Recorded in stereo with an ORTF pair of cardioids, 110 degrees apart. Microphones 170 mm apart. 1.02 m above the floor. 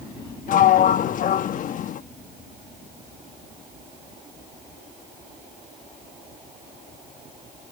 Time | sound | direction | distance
0.5 | a sliding door | 50° left | ?